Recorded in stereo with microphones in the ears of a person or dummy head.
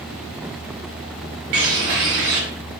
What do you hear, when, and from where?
1.5 s a bird: 55° right (ahead or behind), 0.7 m